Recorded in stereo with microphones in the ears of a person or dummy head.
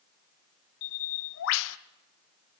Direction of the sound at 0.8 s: 80° left.